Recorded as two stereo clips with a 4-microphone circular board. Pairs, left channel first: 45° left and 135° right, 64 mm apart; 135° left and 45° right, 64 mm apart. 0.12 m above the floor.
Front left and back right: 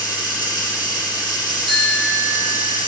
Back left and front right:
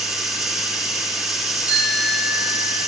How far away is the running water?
About 3 m.